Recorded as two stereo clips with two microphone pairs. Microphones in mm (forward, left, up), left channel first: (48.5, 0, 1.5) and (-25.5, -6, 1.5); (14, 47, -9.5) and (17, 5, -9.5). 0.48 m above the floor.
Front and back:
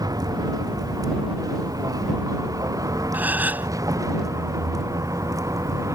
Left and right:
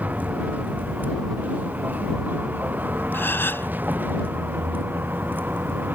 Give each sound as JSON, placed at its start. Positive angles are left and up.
{"t": 0.0, "sound": "a vehicle", "azimuth_deg": -140}
{"t": 3.1, "sound": "a gasp", "azimuth_deg": 120}